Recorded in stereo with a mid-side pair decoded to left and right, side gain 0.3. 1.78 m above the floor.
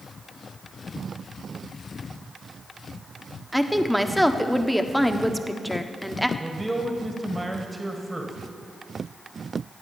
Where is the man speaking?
20° right, 1.9 m.